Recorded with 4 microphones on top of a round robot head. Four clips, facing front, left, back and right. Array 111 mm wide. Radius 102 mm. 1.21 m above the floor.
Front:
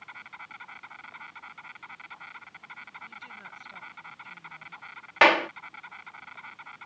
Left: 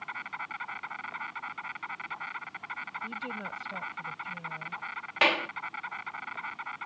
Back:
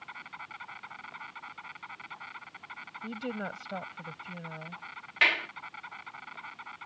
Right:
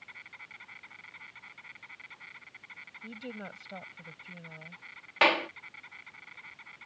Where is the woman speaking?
175° right.